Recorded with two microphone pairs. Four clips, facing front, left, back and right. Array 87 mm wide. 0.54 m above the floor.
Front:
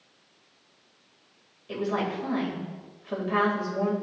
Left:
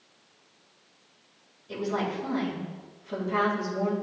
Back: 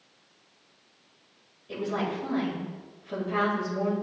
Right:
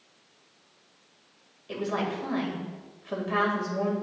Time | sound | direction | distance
1.7 | a woman speaking | 55° right | 3 m